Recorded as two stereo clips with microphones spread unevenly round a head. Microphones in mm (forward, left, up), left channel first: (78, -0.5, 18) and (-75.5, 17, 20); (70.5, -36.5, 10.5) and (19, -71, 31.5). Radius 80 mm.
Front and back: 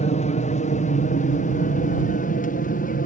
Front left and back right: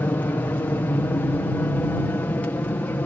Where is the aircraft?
10° left; by 3.1 s 10° right.